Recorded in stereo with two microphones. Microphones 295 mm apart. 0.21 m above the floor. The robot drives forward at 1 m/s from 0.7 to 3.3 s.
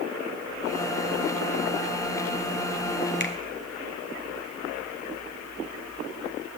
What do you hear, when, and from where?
3.2 s a finger snap: 35° left (ahead or behind), 1.2 m; by 3.3 s 40° left (ahead or behind), 1.2 m